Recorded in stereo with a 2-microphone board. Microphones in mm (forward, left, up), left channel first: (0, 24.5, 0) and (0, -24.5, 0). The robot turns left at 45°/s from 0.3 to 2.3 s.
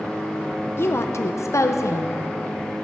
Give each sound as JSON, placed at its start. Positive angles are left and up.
{"t": 0.8, "sound": "a woman speaking", "azimuth_deg": 125, "distance_m": 0.6}